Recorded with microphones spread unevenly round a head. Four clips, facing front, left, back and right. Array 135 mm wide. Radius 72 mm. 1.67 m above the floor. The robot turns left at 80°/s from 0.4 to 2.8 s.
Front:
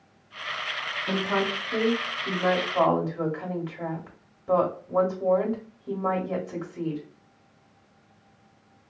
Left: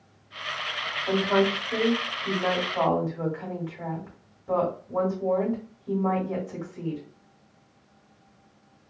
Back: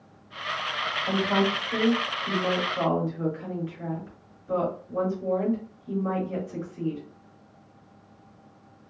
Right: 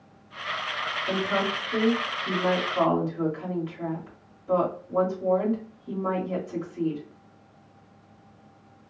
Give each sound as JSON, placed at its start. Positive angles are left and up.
{"t": 1.1, "sound": "a woman speaking", "azimuth_deg": 160, "distance_m": 1.3}